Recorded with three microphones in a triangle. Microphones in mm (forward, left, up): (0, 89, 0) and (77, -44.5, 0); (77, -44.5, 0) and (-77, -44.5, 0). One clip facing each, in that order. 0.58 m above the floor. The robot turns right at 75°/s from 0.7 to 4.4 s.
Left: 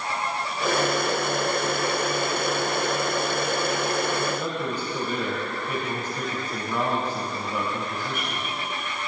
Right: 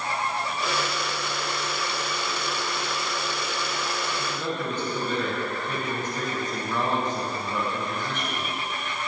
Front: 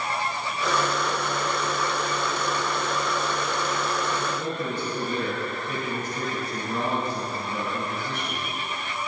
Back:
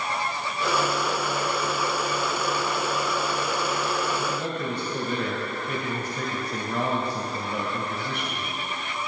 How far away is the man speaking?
About 3 m.